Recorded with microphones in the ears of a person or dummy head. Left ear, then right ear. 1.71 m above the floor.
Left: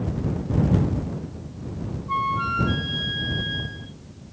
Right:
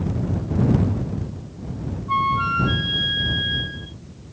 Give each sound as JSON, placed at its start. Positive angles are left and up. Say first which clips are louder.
{"t": 2.1, "sound": "a flute", "louder": "right 4 dB", "side_deg": -10}